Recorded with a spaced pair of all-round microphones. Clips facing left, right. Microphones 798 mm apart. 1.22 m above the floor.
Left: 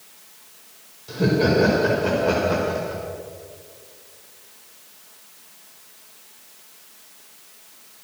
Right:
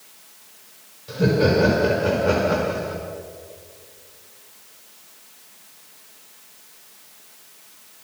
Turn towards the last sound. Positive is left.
turn(degrees=-30)  # may be behind; listen again after turning